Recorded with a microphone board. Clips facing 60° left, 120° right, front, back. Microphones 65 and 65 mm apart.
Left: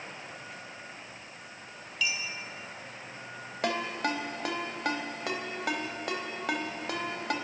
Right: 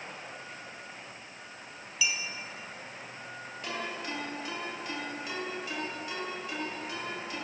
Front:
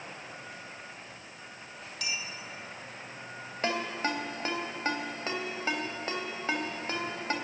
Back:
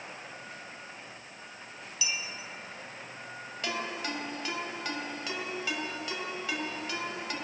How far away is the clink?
About 3.5 m.